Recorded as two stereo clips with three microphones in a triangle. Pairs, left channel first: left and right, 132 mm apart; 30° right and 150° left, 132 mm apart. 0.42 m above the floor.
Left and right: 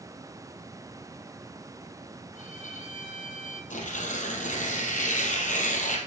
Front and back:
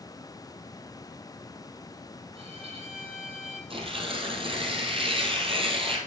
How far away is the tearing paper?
About 2.5 m.